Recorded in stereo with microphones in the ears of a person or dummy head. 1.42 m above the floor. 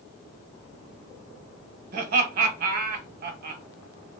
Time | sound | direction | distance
1.9 | laughter | 55° right (ahead or behind) | 1.0 m